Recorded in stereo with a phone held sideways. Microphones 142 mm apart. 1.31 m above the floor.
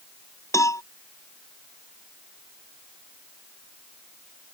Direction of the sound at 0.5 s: 20° left (ahead or behind).